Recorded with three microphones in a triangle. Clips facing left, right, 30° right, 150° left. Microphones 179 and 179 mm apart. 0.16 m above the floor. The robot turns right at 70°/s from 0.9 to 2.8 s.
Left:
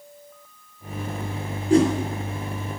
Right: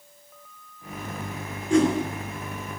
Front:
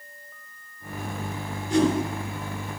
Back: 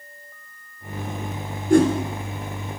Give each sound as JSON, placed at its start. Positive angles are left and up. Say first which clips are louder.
{"t": 1.7, "sound": "a whoosh", "louder": "left 2 dB, back 5 dB", "azimuth_deg": 130, "distance_m": 2.0}